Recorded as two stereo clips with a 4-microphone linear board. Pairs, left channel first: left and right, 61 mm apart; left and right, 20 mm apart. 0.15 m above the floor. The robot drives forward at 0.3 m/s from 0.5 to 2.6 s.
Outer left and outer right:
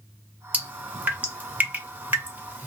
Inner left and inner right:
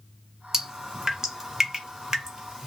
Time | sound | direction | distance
0.5 | dripping | 25° right (ahead or behind) | 1.2 m